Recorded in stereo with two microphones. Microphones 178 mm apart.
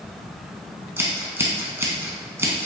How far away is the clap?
No clap in this recording.